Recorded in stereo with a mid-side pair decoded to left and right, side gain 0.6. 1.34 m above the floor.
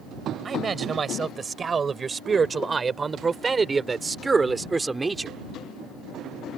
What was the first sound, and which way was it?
A man speaking, 35° right.